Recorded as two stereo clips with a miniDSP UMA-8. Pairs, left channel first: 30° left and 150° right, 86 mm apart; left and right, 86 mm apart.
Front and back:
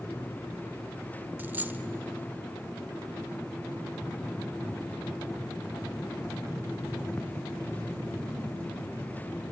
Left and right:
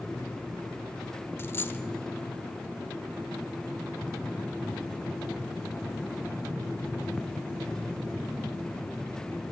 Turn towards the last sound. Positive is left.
turn(degrees=145)